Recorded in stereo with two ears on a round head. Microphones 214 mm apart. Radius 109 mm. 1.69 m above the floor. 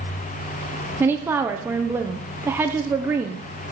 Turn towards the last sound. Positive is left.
turn(degrees=-10)  # may be behind; listen again after turning